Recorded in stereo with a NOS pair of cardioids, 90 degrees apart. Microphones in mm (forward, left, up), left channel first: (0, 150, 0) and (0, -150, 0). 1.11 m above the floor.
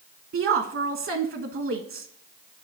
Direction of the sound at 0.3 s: 45° right.